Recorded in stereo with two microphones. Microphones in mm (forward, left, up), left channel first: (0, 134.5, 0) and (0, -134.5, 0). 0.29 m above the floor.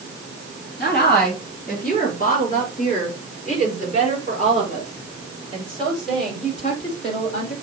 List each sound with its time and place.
0.8 s a woman speaking: 35° left (ahead or behind), 3 m; by 7.5 s 25° left (ahead or behind), 8.5 m